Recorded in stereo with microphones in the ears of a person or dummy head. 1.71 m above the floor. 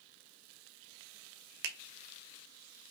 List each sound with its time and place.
1.6 s a finger snap: 60° right (ahead or behind), 0.7 m